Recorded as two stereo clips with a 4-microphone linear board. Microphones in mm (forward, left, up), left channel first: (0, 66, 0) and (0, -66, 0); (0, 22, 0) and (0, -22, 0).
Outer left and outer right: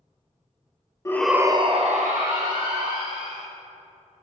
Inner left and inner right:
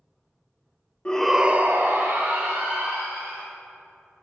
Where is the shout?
25° left (ahead or behind), 0.6 m; by 3.4 s 80° right, 2.5 m.